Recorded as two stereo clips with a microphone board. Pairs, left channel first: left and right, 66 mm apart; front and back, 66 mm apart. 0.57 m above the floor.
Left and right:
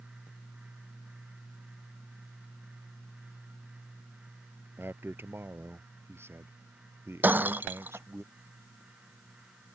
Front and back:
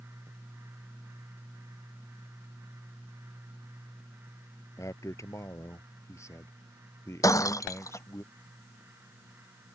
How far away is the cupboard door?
No cupboard door in this recording.